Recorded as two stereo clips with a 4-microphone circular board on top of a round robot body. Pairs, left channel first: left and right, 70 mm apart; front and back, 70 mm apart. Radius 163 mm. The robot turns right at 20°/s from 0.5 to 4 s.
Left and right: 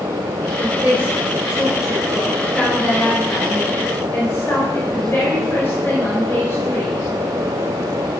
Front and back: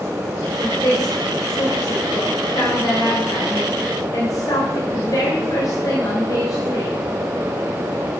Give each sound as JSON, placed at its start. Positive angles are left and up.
{"t": 0.6, "sound": "a woman speaking", "azimuth_deg": -35, "distance_m": 3.5}